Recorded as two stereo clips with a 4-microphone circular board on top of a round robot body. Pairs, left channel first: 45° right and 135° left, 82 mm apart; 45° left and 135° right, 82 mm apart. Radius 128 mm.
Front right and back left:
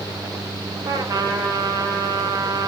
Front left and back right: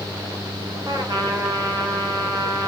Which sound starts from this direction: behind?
A trumpet, at 0.8 s.